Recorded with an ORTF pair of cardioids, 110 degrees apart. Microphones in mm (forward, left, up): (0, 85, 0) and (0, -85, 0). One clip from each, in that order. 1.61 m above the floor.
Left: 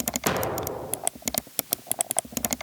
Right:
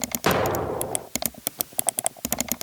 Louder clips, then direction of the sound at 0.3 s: Right 6 dB; 20° right.